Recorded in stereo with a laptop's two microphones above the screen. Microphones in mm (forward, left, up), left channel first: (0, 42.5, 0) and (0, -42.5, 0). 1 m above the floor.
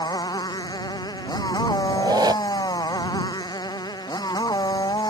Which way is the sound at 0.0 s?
55° left (ahead or behind).